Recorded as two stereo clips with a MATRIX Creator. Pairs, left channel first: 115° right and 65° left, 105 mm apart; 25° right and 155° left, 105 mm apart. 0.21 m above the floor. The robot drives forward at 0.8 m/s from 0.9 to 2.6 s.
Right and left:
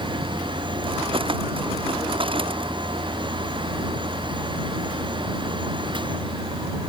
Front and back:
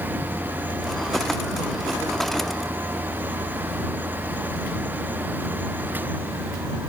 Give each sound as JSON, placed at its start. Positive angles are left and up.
{"t": 0.0, "sound": "a vehicle", "azimuth_deg": 105}